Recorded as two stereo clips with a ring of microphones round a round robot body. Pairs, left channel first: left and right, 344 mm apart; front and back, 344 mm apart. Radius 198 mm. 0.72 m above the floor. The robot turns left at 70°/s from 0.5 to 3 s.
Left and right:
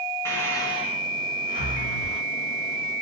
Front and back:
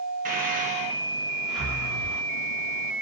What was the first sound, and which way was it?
Breathing, 160° left.